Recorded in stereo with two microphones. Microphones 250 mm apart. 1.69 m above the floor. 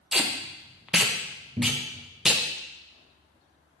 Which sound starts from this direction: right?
A cupboard door, at 1.6 s.